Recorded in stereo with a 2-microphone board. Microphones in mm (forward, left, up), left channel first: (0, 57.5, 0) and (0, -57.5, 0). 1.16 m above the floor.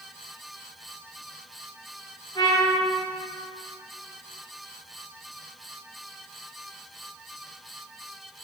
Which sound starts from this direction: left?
A trumpet, at 2.4 s.